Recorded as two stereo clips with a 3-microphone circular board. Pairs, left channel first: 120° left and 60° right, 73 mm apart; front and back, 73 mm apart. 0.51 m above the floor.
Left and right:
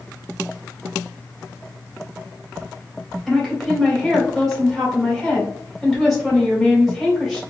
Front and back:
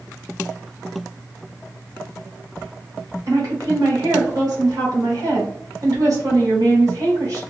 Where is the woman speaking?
150° right, 2 m.